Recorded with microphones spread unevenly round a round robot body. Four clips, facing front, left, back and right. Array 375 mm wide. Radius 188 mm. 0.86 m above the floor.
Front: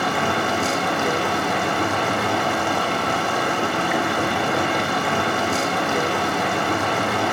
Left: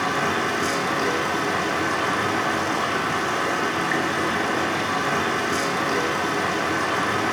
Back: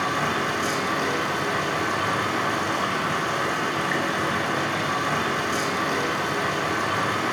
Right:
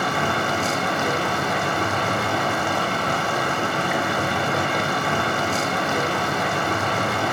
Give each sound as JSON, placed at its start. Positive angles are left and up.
{"t": 0.0, "sound": "running water", "azimuth_deg": -35, "distance_m": 0.9}